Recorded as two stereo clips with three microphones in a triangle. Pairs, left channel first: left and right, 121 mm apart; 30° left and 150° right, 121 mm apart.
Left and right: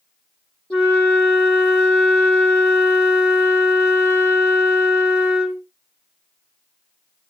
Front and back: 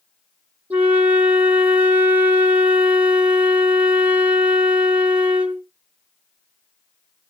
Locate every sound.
0.7 s a flute: 160° left, 1.5 m